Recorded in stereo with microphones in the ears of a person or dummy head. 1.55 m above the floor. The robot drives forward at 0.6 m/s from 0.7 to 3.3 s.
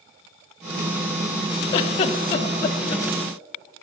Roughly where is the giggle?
Left.